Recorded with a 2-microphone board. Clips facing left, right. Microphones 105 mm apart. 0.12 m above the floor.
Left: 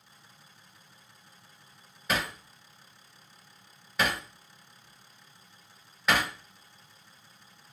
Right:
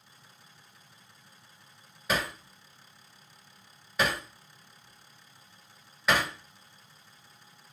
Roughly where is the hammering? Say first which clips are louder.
Right 1 dB; centre.